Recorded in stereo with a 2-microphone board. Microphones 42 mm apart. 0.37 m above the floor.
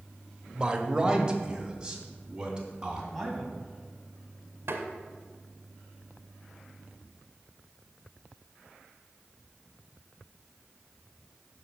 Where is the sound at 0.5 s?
20° right (ahead or behind), 1.0 m; by 3.0 s 15° right (ahead or behind), 3 m.